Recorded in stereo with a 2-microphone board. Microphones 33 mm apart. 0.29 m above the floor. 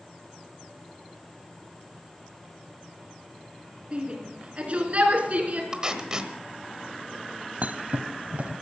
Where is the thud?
50° right (ahead or behind), 0.8 m.